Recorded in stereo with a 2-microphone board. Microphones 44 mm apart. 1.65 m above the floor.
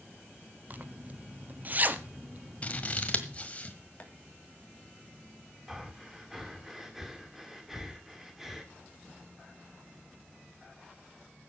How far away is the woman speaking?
No woman speaking in this recording.